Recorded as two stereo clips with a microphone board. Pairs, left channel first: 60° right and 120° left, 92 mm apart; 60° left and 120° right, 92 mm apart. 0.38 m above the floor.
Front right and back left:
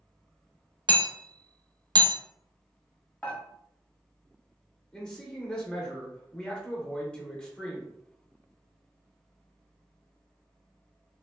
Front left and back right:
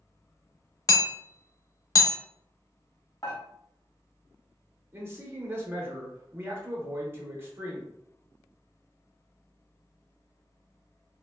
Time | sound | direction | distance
0.9 | hammering | 100° left | 0.5 m
3.2 | dishes clattering | 15° left | 1.1 m
4.9 | a man speaking | 130° right | 0.9 m